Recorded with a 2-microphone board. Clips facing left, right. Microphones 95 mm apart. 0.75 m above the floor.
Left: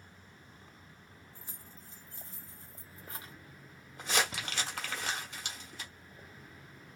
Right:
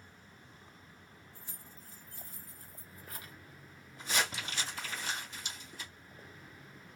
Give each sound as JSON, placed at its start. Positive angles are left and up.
{"t": 1.4, "sound": "keys jangling", "side_deg": 25, "distance_m": 0.8}
{"t": 4.0, "sound": "crumpling", "side_deg": 65, "distance_m": 1.2}